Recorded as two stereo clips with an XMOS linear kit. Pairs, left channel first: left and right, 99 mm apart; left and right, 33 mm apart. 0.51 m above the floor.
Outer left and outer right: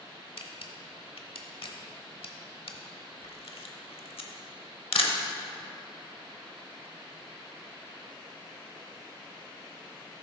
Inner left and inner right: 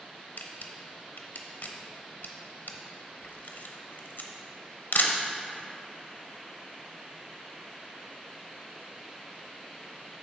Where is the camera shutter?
85° left, 0.8 m.